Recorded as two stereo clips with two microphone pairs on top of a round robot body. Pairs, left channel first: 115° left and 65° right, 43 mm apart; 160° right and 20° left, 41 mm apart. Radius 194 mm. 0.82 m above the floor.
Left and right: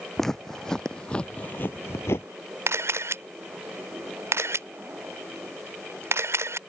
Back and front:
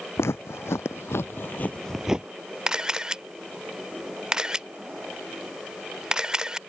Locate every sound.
0.2 s footsteps: 165° right; by 2.3 s 90° left
2.7 s a camera shutter: 55° right